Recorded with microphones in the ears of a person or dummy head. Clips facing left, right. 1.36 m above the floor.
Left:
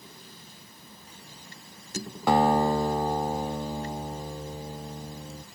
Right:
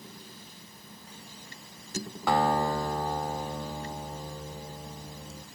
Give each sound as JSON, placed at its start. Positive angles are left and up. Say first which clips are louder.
{"t": 2.3, "sound": "a guitar", "louder": "left 4 dB", "side_deg": 20, "distance_m": 0.7}